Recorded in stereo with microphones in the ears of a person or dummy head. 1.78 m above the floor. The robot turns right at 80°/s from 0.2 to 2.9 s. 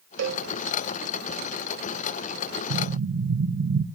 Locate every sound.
0.2 s a cowbell: 60° right (ahead or behind), 0.8 m; by 0.5 s 75° right (ahead or behind), 0.8 m
2.7 s an explosion: 85° right, 1.2 m; by 3.9 s 70° right (ahead or behind), 1.2 m